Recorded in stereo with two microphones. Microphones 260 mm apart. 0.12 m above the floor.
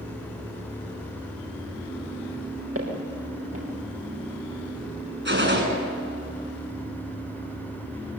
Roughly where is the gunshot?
Right.